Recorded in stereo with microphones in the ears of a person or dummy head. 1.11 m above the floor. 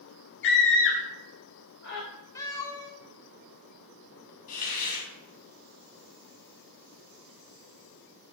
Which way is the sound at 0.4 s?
55° left (ahead or behind).